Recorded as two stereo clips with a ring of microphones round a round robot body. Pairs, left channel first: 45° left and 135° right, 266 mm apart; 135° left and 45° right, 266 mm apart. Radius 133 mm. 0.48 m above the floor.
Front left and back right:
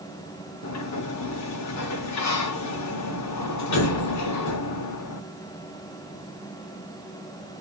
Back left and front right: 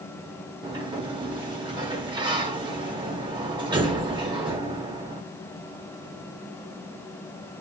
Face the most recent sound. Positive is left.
turn(degrees=25)